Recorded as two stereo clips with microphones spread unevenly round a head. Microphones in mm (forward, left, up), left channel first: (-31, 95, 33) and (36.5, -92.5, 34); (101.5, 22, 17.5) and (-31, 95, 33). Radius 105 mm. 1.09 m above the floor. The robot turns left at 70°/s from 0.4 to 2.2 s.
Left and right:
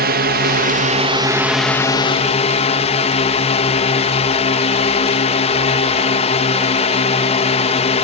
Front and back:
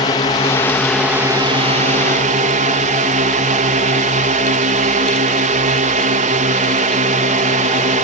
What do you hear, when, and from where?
0.0 s a drone: 75° right; by 8.1 s 155° left